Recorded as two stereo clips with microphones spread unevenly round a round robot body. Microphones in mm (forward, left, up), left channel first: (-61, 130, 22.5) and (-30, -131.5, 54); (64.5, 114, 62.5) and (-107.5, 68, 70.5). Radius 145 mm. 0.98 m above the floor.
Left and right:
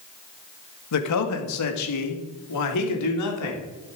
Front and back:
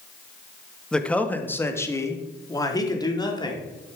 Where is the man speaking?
100° left, 1.5 m; by 3.6 s 80° left, 3 m.